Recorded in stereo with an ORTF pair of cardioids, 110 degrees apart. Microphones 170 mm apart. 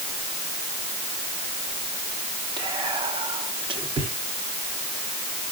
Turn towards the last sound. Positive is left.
turn(degrees=-30)